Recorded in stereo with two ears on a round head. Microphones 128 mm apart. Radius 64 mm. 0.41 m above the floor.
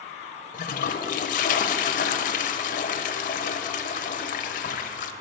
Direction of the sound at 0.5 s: 65° left (ahead or behind).